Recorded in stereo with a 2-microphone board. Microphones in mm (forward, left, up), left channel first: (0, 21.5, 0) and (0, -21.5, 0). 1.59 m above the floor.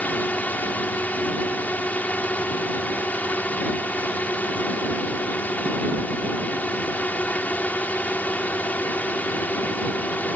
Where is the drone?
40° left (ahead or behind).